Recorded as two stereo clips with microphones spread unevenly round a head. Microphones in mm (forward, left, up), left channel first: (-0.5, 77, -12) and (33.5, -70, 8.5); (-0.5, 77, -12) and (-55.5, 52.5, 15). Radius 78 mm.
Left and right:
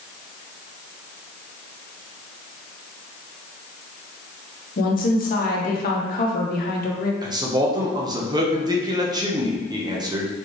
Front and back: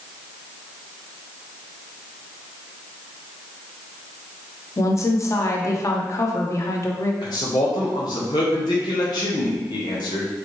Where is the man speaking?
15° right, 1.0 m.